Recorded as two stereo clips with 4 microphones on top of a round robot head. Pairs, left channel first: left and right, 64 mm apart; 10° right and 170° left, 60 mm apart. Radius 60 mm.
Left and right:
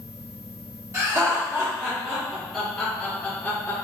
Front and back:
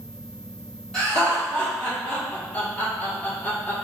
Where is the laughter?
80° right, 1.6 m; by 3.8 s 40° left, 1.7 m.